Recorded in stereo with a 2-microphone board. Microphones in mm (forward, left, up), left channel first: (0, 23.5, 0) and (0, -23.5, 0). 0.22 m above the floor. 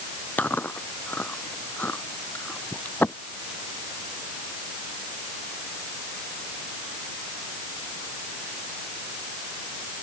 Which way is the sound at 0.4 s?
40° left (ahead or behind).